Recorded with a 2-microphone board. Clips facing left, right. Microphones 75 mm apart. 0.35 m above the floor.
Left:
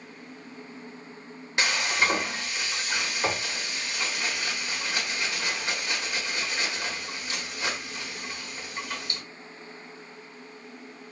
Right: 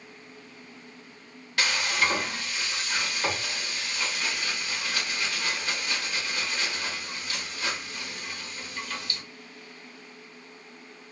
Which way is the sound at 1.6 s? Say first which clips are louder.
Left 1 dB; 20° left (ahead or behind).